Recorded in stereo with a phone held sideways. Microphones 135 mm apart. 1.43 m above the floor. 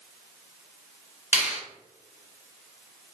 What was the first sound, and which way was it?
A finger snap, 20° right (ahead or behind).